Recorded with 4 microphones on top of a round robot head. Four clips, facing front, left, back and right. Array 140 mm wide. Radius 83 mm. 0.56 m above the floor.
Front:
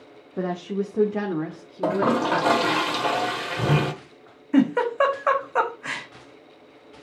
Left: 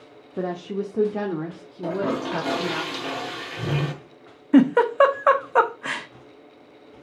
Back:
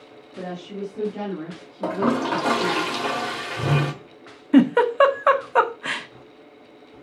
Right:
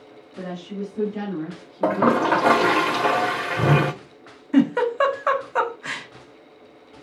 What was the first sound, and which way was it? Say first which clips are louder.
A woman speaking: left 4 dB, front 5 dB; 50° left.